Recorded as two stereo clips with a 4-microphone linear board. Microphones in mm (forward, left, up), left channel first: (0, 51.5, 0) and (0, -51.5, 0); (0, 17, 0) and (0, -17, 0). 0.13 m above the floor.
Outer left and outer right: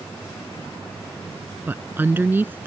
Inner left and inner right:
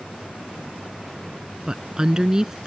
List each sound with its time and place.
1.7 s a woman speaking: 20° right (ahead or behind)